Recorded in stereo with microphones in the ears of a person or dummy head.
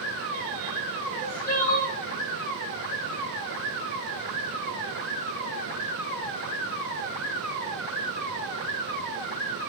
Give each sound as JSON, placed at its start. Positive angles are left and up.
{"t": 1.1, "sound": "crying", "side_deg": 15, "distance_m": 0.6}